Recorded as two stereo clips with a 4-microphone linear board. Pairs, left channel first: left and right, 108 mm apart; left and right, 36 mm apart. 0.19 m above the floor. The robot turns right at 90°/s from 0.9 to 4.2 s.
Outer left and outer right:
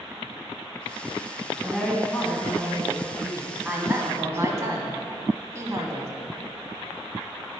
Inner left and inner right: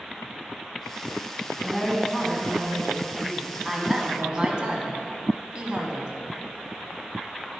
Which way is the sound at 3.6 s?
10° right (ahead or behind).